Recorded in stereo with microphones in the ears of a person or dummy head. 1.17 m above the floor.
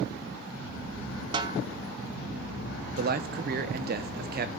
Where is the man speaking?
50° right (ahead or behind), 0.7 m.